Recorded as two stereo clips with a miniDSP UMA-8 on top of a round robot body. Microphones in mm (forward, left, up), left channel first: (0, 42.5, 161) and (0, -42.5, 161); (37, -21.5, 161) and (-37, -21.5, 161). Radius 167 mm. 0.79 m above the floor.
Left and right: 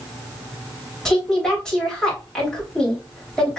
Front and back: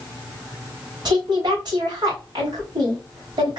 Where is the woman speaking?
170° left, 3 m.